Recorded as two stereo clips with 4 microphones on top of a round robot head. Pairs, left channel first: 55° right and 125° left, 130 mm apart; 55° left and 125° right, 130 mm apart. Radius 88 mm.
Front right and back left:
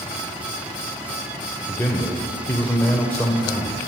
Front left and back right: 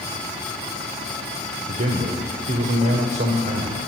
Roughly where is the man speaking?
Behind right.